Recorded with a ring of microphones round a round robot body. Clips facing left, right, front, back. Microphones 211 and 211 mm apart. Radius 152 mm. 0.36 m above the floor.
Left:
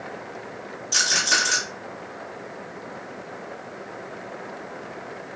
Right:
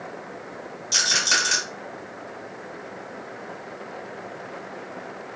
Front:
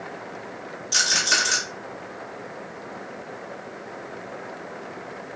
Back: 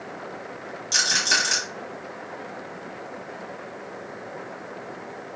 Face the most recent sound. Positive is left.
turn(degrees=-145)